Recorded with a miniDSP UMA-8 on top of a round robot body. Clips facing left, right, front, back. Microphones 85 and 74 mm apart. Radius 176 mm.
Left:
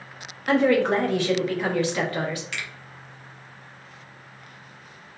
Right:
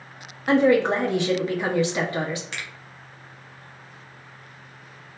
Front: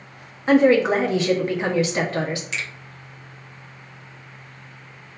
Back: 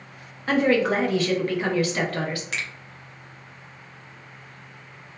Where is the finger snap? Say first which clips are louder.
Left 1 dB, front 1 dB; 145° right, 1.2 m.